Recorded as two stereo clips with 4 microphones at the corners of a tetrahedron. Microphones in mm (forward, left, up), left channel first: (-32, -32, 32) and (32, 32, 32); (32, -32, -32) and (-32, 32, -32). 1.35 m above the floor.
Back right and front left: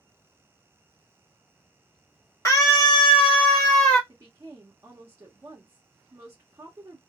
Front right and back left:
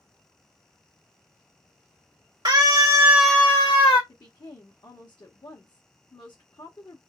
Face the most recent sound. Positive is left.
turn(degrees=-15)